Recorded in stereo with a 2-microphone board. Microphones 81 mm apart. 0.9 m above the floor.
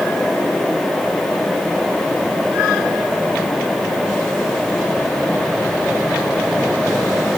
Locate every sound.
Only background noise.